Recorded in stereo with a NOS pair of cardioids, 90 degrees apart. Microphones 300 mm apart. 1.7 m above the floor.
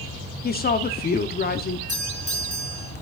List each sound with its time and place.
0.4 s a woman speaking: 30° left, 0.9 m
1.9 s a doorbell: 25° left, 6 m